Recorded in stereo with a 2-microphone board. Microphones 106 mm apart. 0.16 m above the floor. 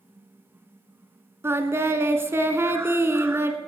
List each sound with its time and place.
1.4 s singing: 25° right (ahead or behind), 0.9 m